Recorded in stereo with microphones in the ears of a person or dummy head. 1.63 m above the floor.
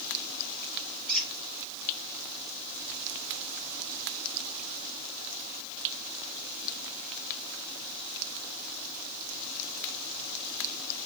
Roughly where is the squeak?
Centre.